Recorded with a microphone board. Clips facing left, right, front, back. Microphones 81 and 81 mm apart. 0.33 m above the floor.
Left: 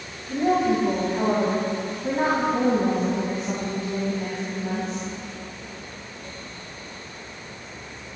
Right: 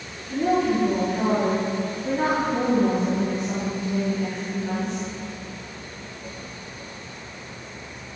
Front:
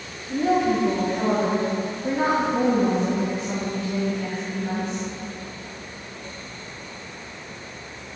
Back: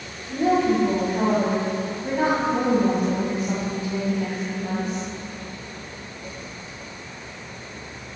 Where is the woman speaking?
135° left, 2.5 m.